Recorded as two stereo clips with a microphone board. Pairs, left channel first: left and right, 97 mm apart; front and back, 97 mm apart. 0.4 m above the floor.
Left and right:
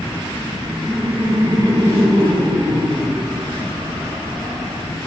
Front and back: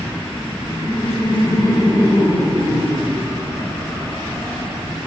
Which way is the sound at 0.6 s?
30° right.